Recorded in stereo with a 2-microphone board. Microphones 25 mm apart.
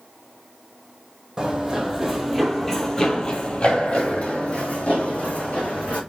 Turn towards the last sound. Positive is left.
turn(degrees=65)  # may be behind; listen again after turning